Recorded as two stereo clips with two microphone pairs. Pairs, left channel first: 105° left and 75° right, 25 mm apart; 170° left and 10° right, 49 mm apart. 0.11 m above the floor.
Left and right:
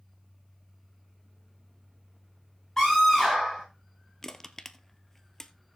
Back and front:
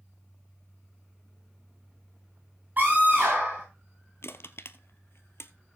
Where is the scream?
35° left, 8 m.